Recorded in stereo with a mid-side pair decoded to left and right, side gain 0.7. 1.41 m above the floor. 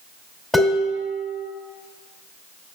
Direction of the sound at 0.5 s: 10° left.